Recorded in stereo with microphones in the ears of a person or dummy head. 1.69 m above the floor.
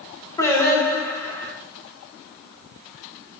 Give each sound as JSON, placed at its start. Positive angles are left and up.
{"t": 0.4, "sound": "singing", "side_deg": 10, "distance_m": 3.5}